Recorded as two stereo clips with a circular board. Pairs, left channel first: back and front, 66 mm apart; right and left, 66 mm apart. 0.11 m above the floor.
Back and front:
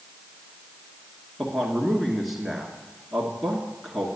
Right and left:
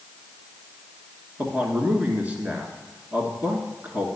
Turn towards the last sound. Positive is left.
turn(degrees=90)